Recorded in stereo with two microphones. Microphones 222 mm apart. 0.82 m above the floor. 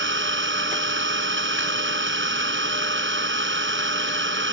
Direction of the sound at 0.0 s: 60° right (ahead or behind).